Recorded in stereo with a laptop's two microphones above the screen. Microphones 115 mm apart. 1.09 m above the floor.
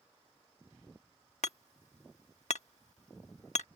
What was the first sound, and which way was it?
Hammering, 80° left.